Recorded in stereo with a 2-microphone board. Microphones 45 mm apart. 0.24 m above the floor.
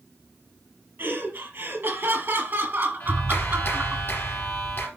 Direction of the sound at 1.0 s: 55° right (ahead or behind).